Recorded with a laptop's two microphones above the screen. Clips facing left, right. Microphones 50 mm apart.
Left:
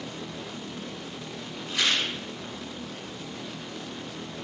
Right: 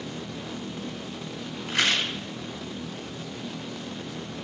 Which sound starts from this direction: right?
A rattle, at 1.7 s.